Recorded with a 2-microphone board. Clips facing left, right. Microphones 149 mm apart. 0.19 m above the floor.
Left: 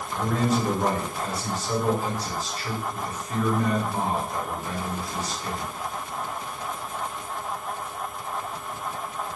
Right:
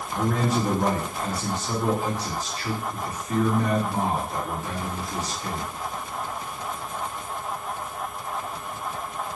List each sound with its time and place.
0.1 s a man speaking: 20° right (ahead or behind), 2.5 m